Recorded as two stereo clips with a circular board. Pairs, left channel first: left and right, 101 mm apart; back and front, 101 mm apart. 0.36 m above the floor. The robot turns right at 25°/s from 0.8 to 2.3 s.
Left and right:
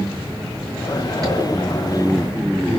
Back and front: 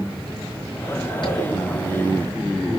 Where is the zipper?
140° right, 5 m; by 1.5 s 135° right, 5 m.